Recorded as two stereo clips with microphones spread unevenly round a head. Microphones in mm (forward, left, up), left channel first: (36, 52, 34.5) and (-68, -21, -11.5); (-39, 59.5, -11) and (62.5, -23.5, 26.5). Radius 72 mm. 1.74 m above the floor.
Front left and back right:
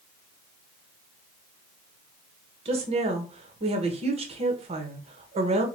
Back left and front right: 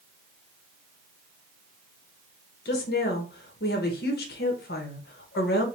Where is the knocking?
No knocking in this recording.